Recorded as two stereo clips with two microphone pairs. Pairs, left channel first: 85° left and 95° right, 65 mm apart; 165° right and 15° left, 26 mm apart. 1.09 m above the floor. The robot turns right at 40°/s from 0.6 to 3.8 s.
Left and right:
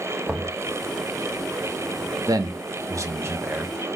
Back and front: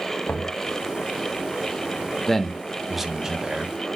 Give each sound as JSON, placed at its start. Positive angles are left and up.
{"t": 0.3, "sound": "knocking", "azimuth_deg": -170, "distance_m": 1.0}
{"t": 2.3, "sound": "a man speaking", "azimuth_deg": -90, "distance_m": 1.0}